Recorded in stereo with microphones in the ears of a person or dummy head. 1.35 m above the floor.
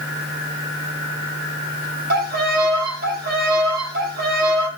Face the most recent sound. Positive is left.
turn(degrees=-55)  # may be behind; listen again after turning